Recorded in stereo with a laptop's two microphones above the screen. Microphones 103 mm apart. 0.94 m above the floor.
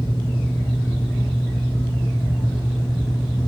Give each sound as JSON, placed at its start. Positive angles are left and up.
{"t": 0.0, "sound": "a fan", "side_deg": 75, "distance_m": 1.3}